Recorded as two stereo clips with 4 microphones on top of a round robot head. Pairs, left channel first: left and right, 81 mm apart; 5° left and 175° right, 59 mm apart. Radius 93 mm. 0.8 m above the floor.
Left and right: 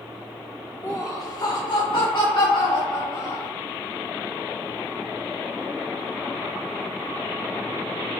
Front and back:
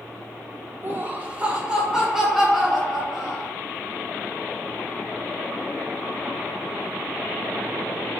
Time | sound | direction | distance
0.8 | laughter | 135° left | 1.0 m